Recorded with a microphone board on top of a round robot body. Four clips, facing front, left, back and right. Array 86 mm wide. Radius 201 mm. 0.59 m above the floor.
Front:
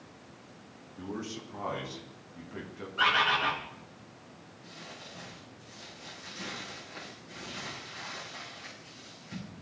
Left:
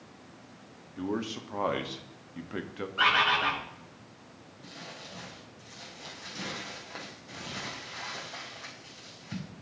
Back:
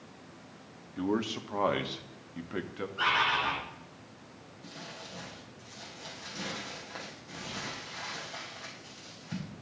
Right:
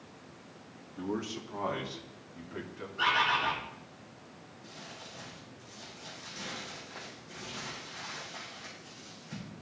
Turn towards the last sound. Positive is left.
turn(degrees=120)